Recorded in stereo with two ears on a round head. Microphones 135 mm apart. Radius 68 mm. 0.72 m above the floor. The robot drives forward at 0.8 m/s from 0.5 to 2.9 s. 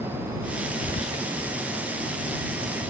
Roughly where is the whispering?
Left.